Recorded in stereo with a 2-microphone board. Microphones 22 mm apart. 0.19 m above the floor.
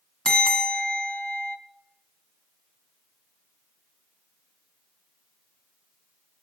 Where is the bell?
35° left (ahead or behind), 0.9 m.